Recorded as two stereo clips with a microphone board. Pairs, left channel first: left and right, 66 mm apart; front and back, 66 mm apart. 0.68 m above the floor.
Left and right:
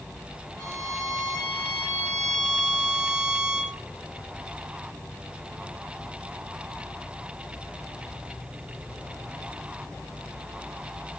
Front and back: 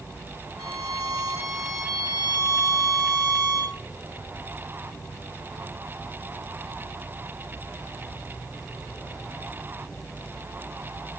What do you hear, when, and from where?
0.6 s a violin: 170° left, 2 m